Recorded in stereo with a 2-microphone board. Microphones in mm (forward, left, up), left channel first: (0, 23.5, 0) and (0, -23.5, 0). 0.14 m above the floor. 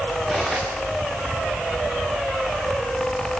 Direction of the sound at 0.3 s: Centre (ahead or behind).